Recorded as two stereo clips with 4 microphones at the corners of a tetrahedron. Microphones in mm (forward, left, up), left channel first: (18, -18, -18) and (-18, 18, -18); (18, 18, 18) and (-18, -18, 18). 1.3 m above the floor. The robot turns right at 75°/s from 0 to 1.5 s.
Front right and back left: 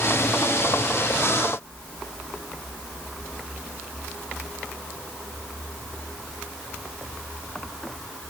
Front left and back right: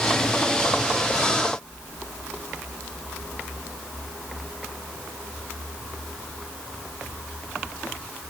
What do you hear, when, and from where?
Only background noise.